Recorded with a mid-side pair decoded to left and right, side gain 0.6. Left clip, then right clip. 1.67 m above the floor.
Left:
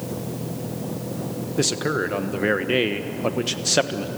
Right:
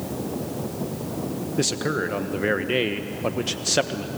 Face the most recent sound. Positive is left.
turn(degrees=10)